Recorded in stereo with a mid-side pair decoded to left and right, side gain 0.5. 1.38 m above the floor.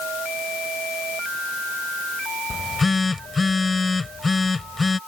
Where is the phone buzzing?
20° left.